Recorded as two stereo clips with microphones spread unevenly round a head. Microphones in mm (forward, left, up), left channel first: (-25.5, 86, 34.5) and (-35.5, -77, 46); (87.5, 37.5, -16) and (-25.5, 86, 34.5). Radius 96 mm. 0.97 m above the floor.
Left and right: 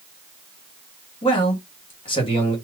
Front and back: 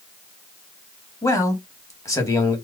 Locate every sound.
1.2 s a man speaking: 30° left, 1.9 m